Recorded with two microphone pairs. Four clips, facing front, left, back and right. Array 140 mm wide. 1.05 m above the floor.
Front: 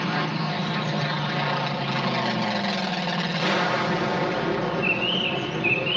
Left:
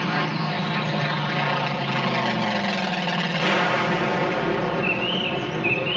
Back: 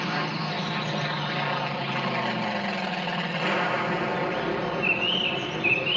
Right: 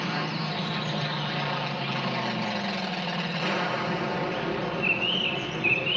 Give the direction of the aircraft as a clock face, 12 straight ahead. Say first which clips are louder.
Left 5 dB, front 3 dB; 10 o'clock.